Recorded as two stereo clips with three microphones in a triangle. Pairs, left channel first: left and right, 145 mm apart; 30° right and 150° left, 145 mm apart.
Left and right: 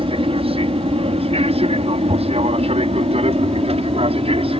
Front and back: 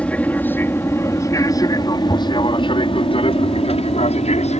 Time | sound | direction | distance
0.0 | an aircraft | 105° right | ?